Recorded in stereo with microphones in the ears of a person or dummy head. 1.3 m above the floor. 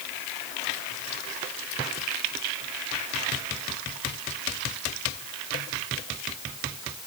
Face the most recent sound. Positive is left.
No sound to turn to.